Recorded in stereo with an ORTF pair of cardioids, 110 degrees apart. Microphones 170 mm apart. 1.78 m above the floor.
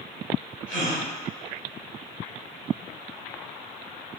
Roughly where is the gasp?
Ahead right.